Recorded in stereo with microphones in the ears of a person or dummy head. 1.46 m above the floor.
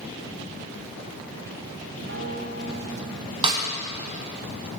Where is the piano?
75° right (ahead or behind), 4 m.